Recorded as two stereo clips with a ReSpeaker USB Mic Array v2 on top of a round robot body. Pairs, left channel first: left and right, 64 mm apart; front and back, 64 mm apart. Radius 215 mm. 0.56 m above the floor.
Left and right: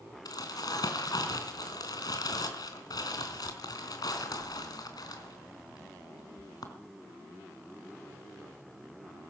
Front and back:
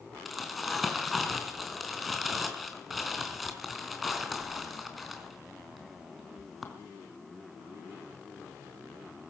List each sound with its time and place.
0.2 s crumpling: 90° left, 3.5 m